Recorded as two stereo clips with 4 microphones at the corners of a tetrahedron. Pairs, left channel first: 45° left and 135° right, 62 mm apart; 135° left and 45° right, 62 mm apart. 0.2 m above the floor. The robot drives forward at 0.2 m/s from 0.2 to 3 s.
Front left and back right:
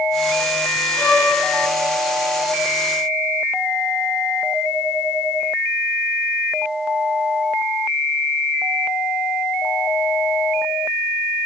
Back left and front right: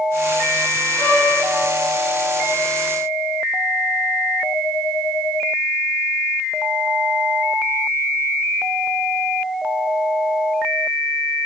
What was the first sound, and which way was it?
A violin, 95° left.